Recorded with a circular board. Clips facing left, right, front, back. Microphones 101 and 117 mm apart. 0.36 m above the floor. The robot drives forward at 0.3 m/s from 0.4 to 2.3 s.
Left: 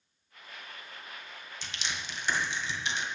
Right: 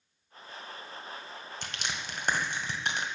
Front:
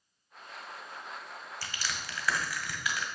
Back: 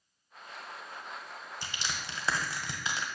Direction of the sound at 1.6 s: 115° right.